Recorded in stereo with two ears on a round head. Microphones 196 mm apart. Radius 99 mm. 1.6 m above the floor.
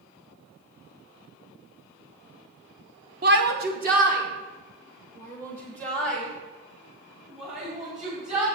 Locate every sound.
3.2 s a shout: 45° right (ahead or behind), 1.0 m; by 8.4 s 35° right (ahead or behind), 5 m